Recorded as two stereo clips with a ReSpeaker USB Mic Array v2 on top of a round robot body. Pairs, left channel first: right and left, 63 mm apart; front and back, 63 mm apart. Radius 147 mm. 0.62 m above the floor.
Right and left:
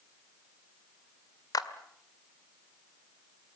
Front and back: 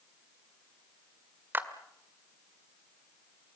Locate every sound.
1.5 s a clap: 120° right, 1.8 m